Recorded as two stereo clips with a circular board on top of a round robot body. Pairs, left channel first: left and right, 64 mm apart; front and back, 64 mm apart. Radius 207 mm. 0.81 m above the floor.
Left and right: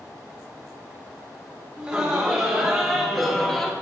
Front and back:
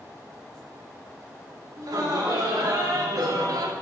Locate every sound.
1.8 s laughter: 170° right, 3.5 m; by 3.7 s 170° left, 1.7 m